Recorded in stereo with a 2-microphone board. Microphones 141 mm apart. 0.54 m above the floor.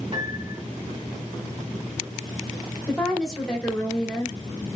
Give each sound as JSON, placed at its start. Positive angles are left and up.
{"t": 0.1, "sound": "a piano", "side_deg": -40, "distance_m": 2.0}
{"t": 2.9, "sound": "a woman speaking", "side_deg": 5, "distance_m": 1.4}